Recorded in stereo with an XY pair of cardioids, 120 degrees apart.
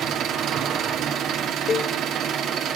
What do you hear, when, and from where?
0.0 s an engine running: 65° right, 1.5 m
1.7 s a cowbell: 40° left, 0.8 m